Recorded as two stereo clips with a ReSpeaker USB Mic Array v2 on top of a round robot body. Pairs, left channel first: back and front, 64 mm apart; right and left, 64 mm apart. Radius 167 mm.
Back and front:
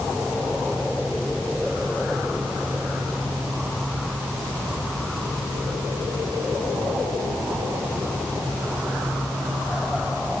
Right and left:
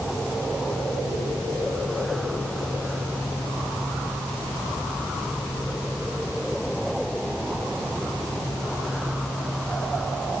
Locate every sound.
Only background noise.